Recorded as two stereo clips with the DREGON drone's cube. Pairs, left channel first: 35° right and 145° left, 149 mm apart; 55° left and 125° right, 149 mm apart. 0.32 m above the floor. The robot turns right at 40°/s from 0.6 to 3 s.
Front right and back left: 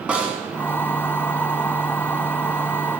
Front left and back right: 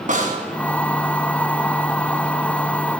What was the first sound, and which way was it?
A snare drum, 135° right.